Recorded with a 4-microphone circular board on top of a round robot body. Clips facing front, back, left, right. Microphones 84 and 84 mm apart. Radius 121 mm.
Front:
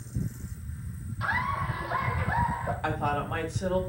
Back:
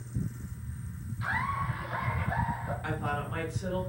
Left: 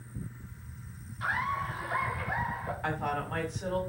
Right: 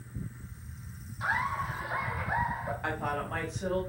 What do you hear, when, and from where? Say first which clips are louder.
1.2 s laughter: front 2 dB, right 1 dB; 10° right, 7 m
2.8 s a woman speaking: front 5 dB, left 2 dB; straight ahead, 6 m